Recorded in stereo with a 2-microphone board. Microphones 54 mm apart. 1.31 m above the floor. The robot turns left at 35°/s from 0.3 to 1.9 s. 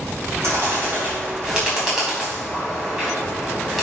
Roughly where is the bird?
Right.